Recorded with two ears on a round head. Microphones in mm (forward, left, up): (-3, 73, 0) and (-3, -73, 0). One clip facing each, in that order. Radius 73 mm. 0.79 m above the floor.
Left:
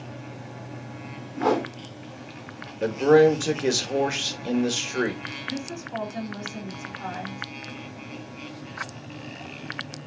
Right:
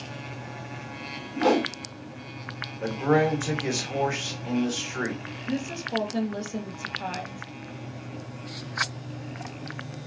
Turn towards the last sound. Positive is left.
turn(degrees=-45)  # may be behind; listen again after turning